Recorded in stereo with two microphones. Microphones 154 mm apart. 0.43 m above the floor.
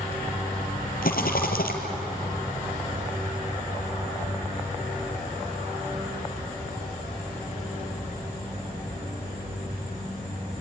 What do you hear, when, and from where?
1.0 s a rattle: 75° left (ahead or behind), 2.5 m